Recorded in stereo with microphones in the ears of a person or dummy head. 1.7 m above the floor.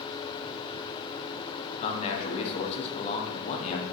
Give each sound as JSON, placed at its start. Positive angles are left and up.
{"t": 1.8, "sound": "a man speaking", "side_deg": 40, "distance_m": 0.9}